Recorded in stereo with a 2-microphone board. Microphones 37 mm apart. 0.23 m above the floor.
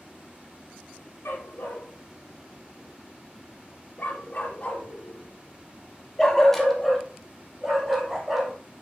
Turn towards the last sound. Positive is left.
turn(degrees=-10)  # may be behind; listen again after turning